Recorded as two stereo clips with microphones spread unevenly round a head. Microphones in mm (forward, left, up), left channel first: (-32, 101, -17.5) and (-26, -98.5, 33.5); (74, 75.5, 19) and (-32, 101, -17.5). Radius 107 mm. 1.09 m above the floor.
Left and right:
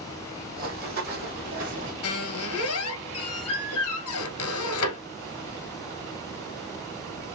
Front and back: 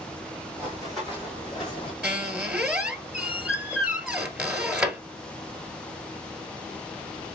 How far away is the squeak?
About 1.7 m.